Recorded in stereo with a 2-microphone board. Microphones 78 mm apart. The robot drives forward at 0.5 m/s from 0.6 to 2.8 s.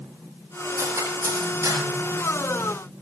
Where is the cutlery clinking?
35° right (ahead or behind), 6 m; by 1.8 s 30° right (ahead or behind), 6.5 m.